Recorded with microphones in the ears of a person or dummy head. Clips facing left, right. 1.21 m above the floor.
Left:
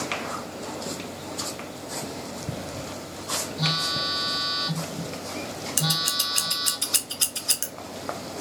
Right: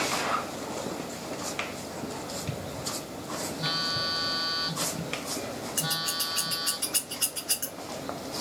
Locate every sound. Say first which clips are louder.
3.6 s a phone buzzing: left 4 dB; 55° left (ahead or behind), 1.2 m
5.8 s scissors: left 4 dB; 45° left (ahead or behind), 0.6 m